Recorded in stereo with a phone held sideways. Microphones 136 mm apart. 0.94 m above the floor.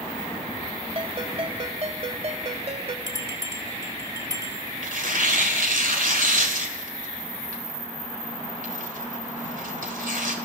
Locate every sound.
0.9 s a ringtone: 50° right (ahead or behind), 1.9 m
3.1 s a bell: 25° right (ahead or behind), 3 m
4.8 s tearing paper: 80° right, 3 m